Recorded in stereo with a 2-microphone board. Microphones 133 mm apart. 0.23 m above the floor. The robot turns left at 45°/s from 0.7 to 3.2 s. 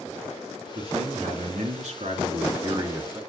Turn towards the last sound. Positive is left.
turn(degrees=-160)